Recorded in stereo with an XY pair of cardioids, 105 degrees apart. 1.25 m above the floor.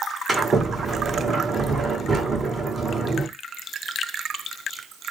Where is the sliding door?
35° right, 1.7 m.